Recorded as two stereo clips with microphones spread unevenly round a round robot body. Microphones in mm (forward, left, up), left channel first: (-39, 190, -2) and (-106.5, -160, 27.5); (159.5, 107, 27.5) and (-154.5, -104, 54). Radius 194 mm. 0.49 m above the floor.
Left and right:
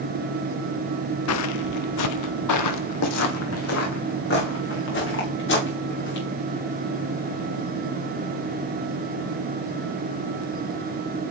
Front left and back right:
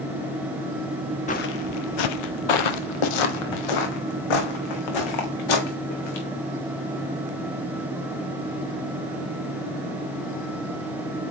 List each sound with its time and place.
1.3 s footsteps: 100° left, 0.5 m; by 6.2 s 15° left, 3 m